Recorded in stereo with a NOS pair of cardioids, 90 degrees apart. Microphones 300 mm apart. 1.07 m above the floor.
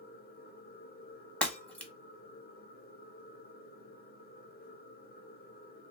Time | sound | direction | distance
0.0 | a machine running | 30° left | 0.8 m
1.4 | breaking glass | 5° left | 0.9 m